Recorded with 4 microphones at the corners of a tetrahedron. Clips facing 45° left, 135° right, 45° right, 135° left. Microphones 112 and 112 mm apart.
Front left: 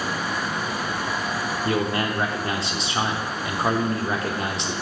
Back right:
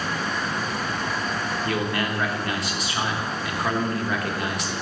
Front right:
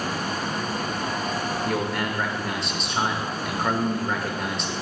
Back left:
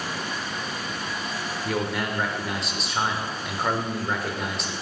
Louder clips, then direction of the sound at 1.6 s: Front left 3 dB, back left 2 dB; 50° left.